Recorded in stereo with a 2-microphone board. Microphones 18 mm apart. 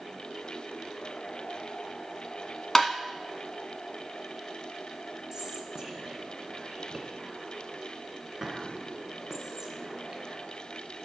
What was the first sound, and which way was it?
Tapping, 20° left (ahead or behind).